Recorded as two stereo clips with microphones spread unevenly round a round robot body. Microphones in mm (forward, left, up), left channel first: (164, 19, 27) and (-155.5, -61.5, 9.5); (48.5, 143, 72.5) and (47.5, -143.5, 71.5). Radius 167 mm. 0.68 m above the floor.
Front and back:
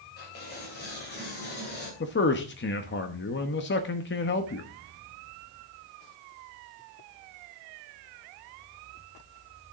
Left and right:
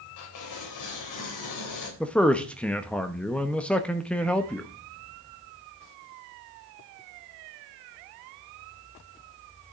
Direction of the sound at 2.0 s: 5° left.